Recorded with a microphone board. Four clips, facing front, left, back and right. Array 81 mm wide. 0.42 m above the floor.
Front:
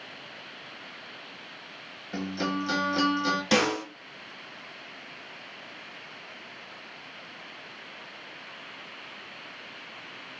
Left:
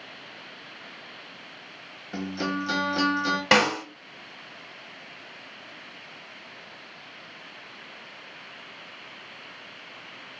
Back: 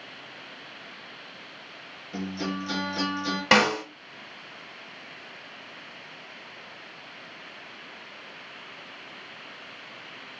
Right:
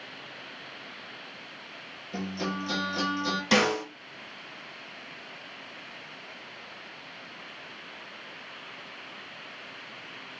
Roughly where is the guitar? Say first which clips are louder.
Left 3 dB, front 2 dB; ahead left.